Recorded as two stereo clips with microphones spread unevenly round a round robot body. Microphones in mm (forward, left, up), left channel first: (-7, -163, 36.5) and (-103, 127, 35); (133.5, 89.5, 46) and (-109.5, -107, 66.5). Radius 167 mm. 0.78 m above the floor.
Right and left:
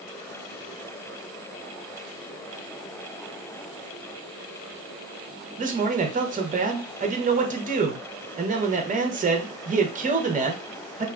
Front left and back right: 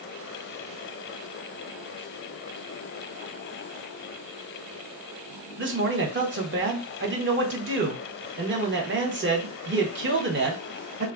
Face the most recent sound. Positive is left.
turn(degrees=170)